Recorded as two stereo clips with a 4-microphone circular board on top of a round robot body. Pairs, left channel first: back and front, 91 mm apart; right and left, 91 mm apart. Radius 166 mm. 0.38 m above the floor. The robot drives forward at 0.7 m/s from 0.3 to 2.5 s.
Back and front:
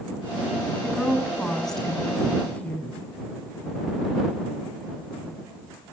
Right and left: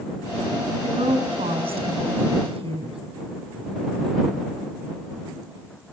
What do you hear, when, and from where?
0.8 s a woman speaking: 85° left, 4 m; by 3.0 s 100° left, 4 m